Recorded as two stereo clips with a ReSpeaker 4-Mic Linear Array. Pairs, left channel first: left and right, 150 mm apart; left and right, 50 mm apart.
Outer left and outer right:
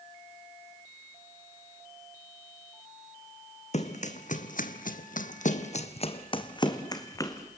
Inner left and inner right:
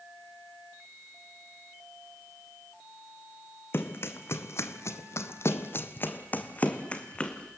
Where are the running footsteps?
50° left (ahead or behind), 1.8 m; by 7.5 s 20° left (ahead or behind), 2.5 m.